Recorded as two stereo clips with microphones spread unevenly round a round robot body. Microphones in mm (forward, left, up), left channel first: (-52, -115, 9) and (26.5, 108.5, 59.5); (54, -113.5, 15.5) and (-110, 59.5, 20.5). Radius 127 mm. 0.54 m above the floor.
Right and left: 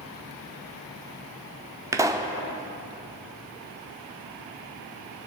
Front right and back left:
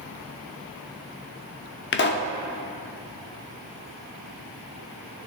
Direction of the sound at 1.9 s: 15° right.